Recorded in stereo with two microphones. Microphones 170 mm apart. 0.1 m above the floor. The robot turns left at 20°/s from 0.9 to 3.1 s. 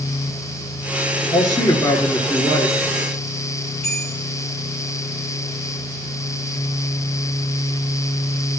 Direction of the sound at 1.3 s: 25° left (ahead or behind).